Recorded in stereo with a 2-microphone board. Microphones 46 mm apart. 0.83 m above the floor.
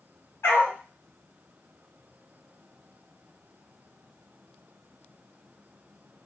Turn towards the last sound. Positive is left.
turn(degrees=70)  # may be behind; listen again after turning